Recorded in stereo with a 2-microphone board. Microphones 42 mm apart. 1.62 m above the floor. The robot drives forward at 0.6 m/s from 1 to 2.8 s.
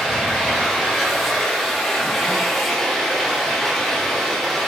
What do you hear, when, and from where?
0.0 s running water: centre (ahead or behind), 4 m